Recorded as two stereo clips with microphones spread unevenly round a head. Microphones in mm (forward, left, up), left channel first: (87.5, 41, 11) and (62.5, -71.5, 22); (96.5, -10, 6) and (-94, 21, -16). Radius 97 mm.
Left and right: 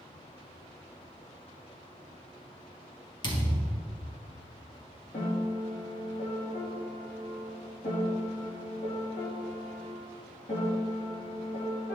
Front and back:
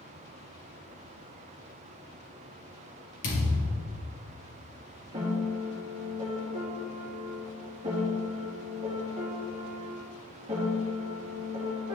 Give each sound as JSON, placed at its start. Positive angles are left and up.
{"t": 3.2, "sound": "a thud", "azimuth_deg": 30, "distance_m": 3.0}
{"t": 5.1, "sound": "a piano", "azimuth_deg": 105, "distance_m": 3.0}